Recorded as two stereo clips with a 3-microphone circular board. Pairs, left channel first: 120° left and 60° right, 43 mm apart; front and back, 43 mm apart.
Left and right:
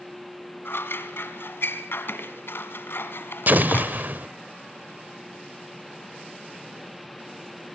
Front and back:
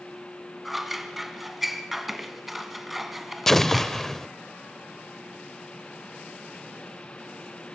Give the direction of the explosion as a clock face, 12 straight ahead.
3 o'clock.